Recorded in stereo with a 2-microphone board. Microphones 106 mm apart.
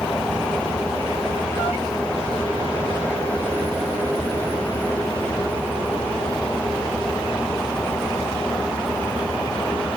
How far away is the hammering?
No hammering in this recording.